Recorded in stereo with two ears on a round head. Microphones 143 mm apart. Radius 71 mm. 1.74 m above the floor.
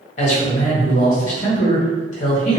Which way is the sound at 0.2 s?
50° left (ahead or behind).